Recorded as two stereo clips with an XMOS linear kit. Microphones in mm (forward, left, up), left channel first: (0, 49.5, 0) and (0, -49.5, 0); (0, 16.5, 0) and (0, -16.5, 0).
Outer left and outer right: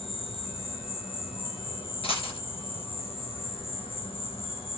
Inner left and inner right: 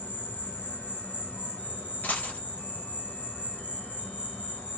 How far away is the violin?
I don't hear a violin.